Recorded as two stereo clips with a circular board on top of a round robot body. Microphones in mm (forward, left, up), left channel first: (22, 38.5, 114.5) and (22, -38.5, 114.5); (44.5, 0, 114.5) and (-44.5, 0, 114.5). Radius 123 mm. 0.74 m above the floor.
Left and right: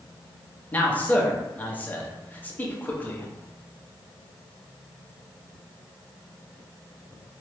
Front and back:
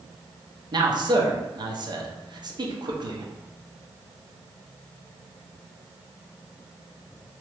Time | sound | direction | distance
0.7 | a man speaking | 155° left | 0.9 m